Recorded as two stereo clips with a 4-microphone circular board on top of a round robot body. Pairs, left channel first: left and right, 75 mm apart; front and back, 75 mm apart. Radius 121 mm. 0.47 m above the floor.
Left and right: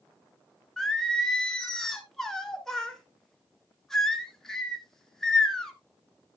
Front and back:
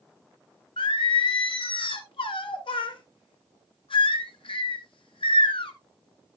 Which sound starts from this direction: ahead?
Singing, at 0.8 s.